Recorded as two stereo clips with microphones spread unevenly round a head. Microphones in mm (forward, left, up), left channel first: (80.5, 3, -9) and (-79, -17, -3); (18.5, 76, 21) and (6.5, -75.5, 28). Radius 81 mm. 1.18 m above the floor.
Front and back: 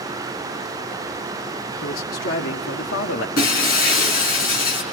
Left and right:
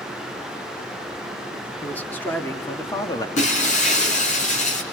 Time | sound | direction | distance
1.8 | a man speaking | 5° left | 3 m
3.4 | breaking glass | 40° left | 5 m